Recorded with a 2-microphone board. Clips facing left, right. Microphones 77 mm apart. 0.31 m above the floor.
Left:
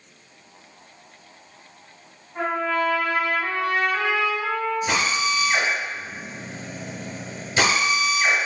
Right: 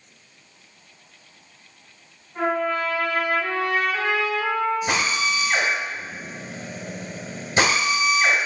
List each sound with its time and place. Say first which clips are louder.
2.4 s a trumpet: right 1 dB; 5° left (ahead or behind), 2.0 m
4.9 s a drill: even; 30° right (ahead or behind), 1.1 m